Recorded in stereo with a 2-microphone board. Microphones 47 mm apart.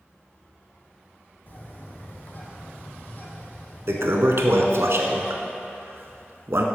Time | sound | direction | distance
1.5 | a bird | 45° left (ahead or behind) | 1.4 m
3.9 | a toilet flushing | 65° right (ahead or behind) | 0.7 m